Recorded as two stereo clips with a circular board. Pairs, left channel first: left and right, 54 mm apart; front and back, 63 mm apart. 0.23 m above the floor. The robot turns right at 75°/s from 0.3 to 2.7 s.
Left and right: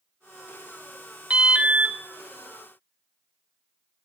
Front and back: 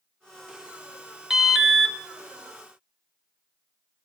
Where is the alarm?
110° right, 0.7 m; by 2.0 s 60° right, 0.7 m.